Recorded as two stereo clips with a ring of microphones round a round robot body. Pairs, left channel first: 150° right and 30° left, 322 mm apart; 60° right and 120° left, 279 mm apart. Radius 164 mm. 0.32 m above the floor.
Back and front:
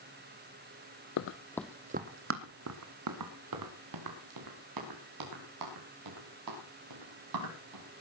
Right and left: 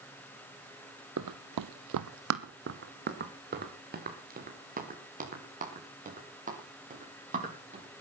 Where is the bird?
I don't hear a bird.